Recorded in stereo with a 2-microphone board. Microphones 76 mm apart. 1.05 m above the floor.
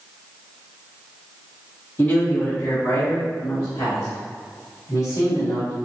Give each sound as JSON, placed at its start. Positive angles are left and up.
{"t": 2.0, "sound": "a man speaking", "side_deg": 35, "distance_m": 1.6}